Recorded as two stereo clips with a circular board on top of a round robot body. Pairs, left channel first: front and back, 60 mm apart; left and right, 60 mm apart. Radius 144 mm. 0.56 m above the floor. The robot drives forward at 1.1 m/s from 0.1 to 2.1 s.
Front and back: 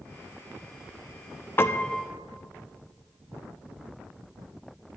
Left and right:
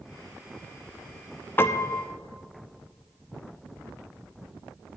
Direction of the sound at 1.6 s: 45° left.